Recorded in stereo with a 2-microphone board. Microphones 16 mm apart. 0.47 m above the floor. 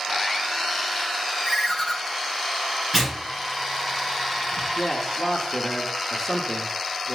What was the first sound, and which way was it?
A ringtone, 10° right (ahead or behind).